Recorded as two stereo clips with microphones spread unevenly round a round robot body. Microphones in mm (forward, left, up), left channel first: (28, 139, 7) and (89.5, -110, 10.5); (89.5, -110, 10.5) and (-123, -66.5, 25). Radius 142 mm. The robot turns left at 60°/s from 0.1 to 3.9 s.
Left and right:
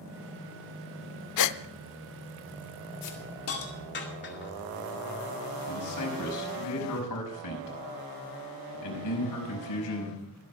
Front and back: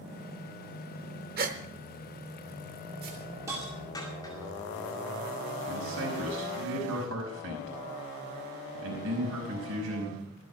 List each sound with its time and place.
1.4 s a gasp: 115° left, 0.6 m; by 1.6 s 100° left, 0.6 m
3.0 s a hiss: 115° left, 2 m; by 4.5 s 60° left, 2 m
5.7 s a man speaking: 120° left, 5 m